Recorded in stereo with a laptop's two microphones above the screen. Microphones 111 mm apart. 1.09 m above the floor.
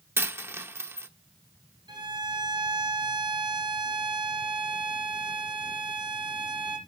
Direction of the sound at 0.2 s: 20° right (ahead or behind).